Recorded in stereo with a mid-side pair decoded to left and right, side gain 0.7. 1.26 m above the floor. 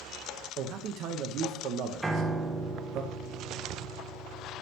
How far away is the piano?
About 0.9 m.